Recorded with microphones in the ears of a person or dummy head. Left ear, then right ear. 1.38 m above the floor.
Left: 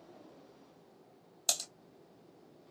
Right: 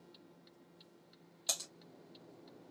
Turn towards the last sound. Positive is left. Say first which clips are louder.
# left 5 dB
turn(degrees=20)  # may be behind; listen again after turning